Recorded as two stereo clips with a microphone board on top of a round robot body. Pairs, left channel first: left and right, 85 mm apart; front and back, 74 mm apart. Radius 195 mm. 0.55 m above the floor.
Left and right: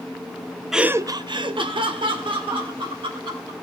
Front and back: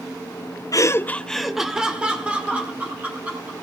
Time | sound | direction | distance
0.7 | laughter | 5° right | 0.9 m